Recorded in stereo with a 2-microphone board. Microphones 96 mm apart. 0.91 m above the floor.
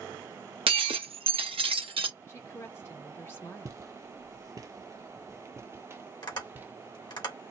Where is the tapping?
50° left (ahead or behind), 2.5 m.